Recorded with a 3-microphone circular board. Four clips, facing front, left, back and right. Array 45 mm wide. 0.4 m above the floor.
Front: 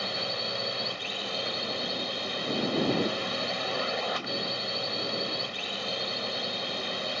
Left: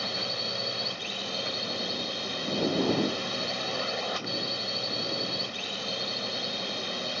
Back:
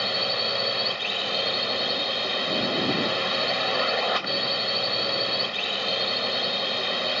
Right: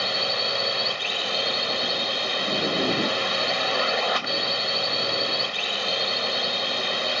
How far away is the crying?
No crying in this recording.